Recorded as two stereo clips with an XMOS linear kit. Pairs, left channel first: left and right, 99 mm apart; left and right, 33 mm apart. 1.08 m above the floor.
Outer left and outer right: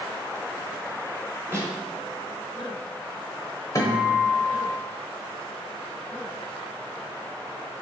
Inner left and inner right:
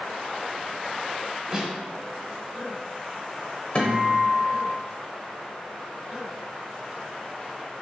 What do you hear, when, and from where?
1.5 s a snare drum: 25° right (ahead or behind), 1.2 m
3.8 s a guitar: 35° left (ahead or behind), 0.9 m